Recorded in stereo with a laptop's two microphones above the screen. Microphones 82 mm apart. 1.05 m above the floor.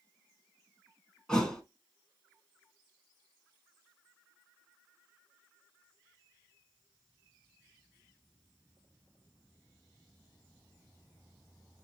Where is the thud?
10° left (ahead or behind), 1.0 m.